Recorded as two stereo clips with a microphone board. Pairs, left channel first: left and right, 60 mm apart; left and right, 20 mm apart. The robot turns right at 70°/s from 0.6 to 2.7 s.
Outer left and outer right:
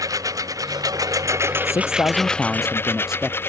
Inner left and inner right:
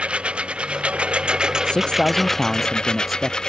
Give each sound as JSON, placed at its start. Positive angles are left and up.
{"t": 0.0, "sound": "a lawn mower", "side_deg": -75}
{"t": 1.6, "sound": "a man speaking", "azimuth_deg": 115}